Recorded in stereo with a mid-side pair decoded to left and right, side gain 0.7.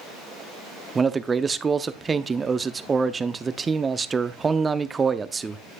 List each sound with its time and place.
0.9 s a man speaking: 20° right, 0.5 m